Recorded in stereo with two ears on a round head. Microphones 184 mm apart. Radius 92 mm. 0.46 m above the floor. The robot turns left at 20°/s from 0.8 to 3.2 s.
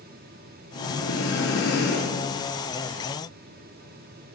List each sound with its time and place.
0.8 s breathing: 70° left, 4.5 m; by 2.3 s 40° left, 4.5 m